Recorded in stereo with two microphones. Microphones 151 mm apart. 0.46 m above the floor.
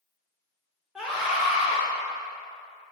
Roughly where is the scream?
Centre.